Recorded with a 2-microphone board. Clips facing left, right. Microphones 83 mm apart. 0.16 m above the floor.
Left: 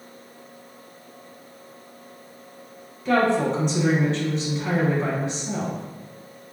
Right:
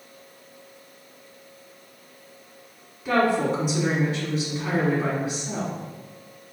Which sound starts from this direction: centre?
A woman speaking, at 3.0 s.